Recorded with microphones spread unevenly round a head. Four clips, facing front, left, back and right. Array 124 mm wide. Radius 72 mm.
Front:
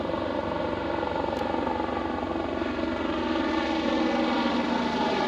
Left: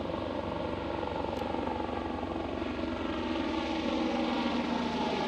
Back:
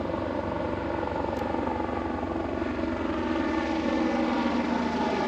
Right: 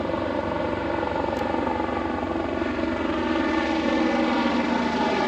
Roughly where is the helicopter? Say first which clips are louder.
Right 9 dB, front 1 dB; ahead right.